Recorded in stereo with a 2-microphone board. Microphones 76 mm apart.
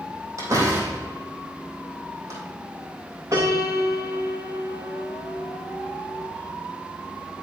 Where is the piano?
40° right (ahead or behind), 4 m.